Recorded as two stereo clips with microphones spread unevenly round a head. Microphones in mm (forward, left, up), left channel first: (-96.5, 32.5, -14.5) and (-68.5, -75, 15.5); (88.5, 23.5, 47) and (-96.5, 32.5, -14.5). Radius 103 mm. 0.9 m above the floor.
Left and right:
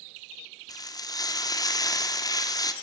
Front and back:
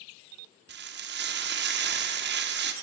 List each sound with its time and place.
0.7 s frying: 160° left, 1.8 m